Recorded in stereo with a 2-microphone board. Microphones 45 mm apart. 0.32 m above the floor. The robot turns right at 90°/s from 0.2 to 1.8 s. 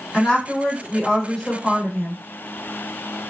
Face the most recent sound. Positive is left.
turn(degrees=-5)  # may be behind; listen again after turning